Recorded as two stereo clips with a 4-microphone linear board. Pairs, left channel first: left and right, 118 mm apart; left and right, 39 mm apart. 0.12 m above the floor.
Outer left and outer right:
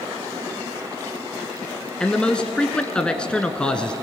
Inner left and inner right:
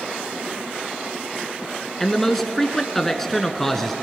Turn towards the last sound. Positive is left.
turn(degrees=10)  # may be behind; listen again after turning